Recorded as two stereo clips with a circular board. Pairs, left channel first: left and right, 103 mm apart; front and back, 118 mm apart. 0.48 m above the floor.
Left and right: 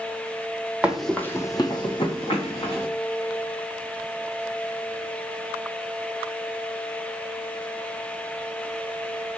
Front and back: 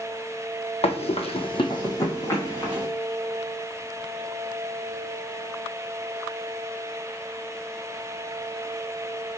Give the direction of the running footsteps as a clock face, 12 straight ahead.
12 o'clock.